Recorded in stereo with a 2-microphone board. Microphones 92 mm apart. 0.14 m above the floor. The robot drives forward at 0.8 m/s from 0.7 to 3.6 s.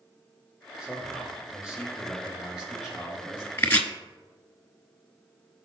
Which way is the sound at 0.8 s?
10° right (ahead or behind).